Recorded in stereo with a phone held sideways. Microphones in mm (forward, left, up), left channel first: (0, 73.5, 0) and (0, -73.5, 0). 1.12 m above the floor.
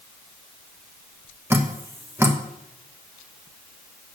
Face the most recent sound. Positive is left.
turn(degrees=-15)  # may be behind; listen again after turning